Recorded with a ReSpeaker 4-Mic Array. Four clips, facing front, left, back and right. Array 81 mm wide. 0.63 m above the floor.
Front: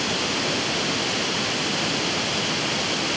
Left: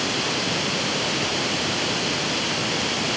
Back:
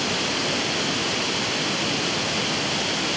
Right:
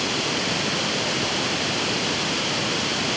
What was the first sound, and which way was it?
Only background noise.